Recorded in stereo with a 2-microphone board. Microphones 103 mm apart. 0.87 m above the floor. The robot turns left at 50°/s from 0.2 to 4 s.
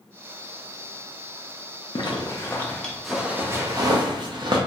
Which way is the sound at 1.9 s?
50° left (ahead or behind).